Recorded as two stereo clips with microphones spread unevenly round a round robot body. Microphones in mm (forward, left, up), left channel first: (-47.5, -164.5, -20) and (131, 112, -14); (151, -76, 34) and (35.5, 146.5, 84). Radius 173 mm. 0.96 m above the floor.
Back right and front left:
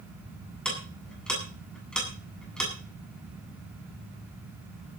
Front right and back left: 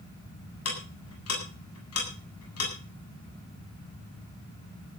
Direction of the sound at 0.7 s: 35° right.